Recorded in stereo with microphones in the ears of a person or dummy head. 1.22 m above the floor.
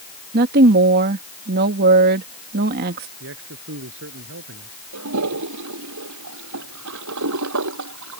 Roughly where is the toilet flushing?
Right.